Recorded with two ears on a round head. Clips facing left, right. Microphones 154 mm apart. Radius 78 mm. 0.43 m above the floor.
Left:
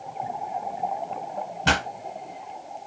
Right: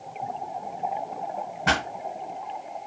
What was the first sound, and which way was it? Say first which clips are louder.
A pop: left 1 dB; 35° left (ahead or behind).